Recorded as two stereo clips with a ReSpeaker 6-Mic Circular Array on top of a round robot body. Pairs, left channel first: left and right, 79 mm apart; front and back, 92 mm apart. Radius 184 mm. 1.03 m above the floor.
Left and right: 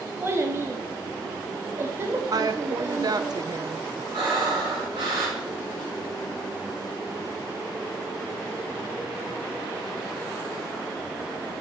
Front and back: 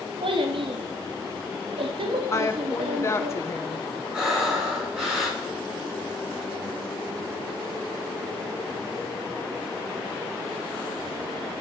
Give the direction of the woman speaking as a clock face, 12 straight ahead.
2 o'clock.